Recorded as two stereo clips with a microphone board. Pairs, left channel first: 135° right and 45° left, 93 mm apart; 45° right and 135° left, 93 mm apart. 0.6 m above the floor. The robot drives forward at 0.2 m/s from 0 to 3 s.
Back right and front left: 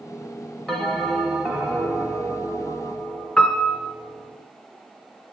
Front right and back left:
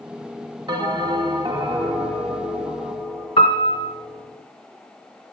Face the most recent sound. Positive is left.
turn(degrees=-60)